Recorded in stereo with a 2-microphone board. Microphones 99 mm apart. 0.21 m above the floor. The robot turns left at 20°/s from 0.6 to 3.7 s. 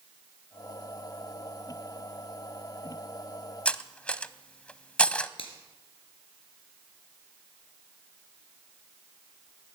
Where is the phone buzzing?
No phone buzzing in this recording.